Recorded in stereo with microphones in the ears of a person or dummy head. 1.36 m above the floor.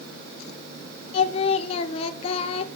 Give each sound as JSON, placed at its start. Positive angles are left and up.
{"t": 1.1, "sound": "singing", "side_deg": 35, "distance_m": 0.9}